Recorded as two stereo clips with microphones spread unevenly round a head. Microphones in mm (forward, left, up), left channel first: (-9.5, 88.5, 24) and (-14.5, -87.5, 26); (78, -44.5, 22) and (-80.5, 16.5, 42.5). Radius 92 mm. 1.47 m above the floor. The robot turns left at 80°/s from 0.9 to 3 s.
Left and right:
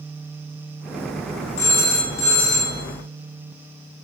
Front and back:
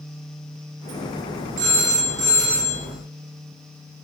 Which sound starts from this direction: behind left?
A phone ringing, at 1.6 s.